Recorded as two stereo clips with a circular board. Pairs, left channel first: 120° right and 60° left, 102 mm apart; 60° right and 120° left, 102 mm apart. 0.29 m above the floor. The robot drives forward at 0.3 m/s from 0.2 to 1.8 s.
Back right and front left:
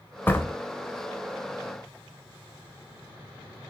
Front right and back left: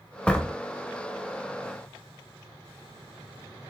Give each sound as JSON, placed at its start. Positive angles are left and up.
{"t": 0.3, "sound": "a door slam", "azimuth_deg": -115, "distance_m": 0.6}